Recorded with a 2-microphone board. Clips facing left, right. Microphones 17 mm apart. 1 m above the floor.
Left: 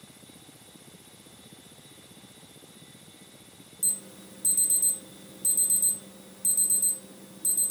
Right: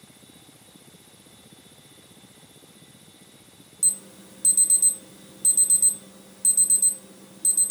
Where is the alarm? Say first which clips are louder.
Right 5 dB; 45° right (ahead or behind), 0.6 m.